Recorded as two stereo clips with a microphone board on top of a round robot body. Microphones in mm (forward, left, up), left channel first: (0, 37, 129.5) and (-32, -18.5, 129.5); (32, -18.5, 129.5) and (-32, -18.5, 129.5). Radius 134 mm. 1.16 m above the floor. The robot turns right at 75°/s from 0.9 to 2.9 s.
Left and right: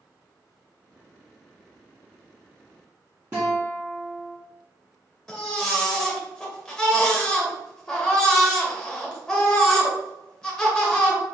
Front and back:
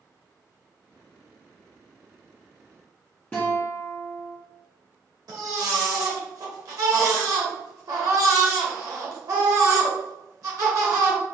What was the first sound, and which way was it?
A guitar, 60° right.